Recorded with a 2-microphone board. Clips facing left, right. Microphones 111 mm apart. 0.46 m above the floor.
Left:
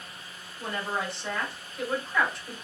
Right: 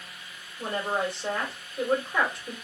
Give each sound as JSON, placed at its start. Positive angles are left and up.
{"t": 0.6, "sound": "a woman speaking", "side_deg": -45, "distance_m": 1.9}